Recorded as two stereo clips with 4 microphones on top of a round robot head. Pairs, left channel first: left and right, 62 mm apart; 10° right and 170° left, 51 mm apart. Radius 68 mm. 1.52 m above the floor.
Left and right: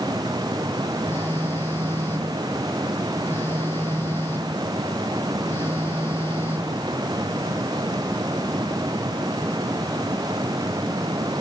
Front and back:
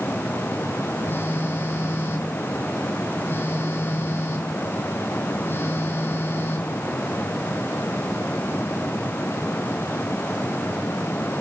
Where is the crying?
I don't hear crying.